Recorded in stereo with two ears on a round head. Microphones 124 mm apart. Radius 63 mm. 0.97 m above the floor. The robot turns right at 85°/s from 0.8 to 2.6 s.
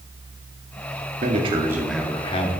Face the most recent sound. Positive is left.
turn(degrees=60)